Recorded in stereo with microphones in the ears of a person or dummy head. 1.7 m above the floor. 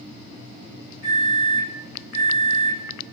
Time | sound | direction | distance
1.0 | a microwave | 55° right (ahead or behind) | 1.5 m